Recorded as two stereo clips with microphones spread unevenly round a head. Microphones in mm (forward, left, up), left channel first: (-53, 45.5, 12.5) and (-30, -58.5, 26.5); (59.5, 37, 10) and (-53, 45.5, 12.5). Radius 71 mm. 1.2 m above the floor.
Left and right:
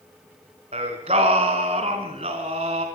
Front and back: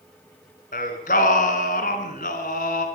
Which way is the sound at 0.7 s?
30° right.